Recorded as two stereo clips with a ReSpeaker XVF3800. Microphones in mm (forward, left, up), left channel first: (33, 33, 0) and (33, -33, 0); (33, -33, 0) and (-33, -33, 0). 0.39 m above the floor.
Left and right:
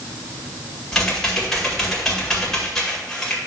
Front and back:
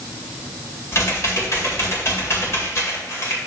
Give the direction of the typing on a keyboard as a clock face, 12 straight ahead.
12 o'clock.